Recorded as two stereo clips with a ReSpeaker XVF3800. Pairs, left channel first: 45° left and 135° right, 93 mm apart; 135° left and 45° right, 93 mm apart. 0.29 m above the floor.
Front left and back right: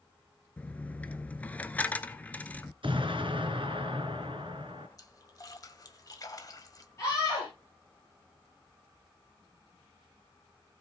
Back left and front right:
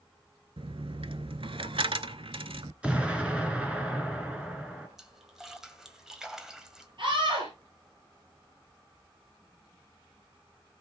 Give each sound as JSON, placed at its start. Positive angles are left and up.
{"t": 0.6, "sound": "a dropped coin", "azimuth_deg": -30, "distance_m": 0.7}
{"t": 2.8, "sound": "an explosion", "azimuth_deg": -125, "distance_m": 2.5}
{"t": 5.0, "sound": "a splash", "azimuth_deg": 35, "distance_m": 1.8}
{"t": 7.0, "sound": "a scream", "azimuth_deg": -15, "distance_m": 7.0}